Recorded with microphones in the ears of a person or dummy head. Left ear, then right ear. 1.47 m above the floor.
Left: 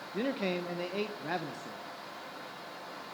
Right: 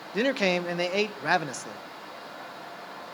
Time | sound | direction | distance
0.1 | a man speaking | 45° right (ahead or behind) | 0.7 m